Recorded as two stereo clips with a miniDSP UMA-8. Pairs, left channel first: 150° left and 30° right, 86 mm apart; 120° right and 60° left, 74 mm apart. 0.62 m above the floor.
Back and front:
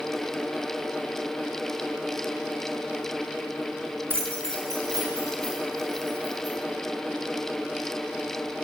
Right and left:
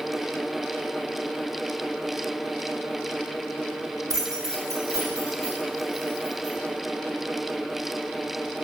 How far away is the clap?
No clap in this recording.